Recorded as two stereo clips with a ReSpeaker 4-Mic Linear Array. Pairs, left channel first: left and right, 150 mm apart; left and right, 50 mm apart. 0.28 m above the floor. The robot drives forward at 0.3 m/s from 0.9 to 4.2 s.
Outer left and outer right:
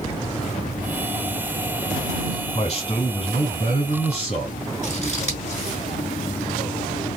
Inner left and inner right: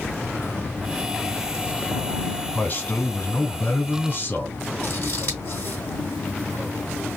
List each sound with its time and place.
2.5 s a man speaking: 45° left (ahead or behind), 2.5 m; by 4.7 s 50° left (ahead or behind), 2 m
4.8 s scissors: 50° left (ahead or behind), 2.5 m